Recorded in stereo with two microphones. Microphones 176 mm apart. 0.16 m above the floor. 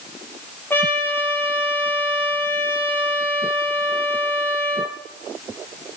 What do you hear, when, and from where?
0.7 s a trumpet: 10° left (ahead or behind), 3 m